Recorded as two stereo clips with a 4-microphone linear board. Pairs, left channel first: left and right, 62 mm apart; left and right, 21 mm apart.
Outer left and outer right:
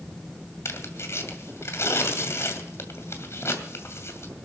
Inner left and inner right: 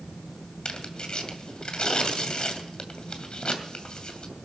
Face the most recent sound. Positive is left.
turn(degrees=50)  # may be behind; listen again after turning